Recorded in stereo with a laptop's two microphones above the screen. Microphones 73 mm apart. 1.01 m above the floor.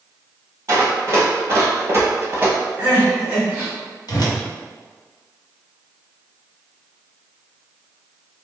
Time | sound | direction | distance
0.7 | running footsteps | 35° right (ahead or behind) | 1.5 m
2.8 | crying | 20° right (ahead or behind) | 1.1 m
4.1 | a whoosh | 70° left (ahead or behind) | 0.9 m